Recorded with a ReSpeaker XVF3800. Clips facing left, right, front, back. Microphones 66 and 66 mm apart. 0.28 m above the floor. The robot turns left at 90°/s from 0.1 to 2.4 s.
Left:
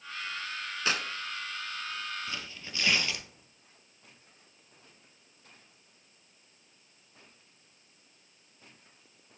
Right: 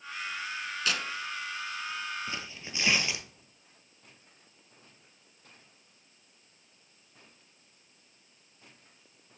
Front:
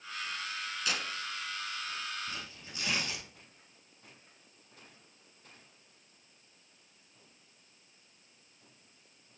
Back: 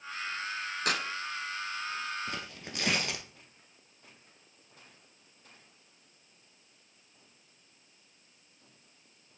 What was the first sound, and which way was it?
Tearing paper, 150° left.